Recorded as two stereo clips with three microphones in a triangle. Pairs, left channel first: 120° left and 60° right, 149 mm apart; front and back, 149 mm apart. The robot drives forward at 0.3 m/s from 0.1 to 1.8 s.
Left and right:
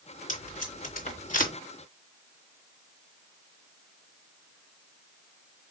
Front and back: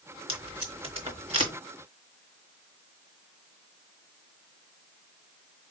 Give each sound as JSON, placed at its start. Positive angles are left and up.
{"t": 0.3, "sound": "tape being pulled", "azimuth_deg": 130, "distance_m": 3.0}